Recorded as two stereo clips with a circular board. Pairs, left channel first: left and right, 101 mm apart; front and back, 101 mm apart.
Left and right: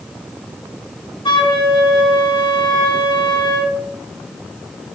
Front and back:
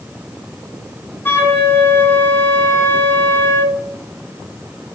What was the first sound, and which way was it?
A flute, 65° left.